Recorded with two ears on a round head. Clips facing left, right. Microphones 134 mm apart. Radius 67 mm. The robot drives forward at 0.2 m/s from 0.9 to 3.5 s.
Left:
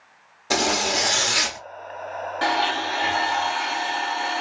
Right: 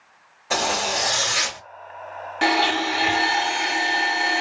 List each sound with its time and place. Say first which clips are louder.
0.5 s a zipper: left 1 dB; 45° left (ahead or behind), 1.1 m
2.4 s a blender: right 3 dB; 20° right (ahead or behind), 0.9 m